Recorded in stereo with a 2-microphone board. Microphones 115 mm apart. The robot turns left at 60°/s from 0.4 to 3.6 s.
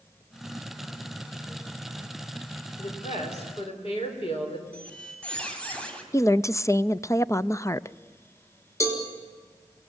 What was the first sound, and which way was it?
A woman speaking, 100° left.